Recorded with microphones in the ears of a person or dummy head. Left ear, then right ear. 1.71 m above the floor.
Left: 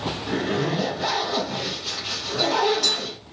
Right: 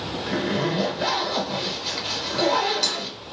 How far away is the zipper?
About 1.9 m.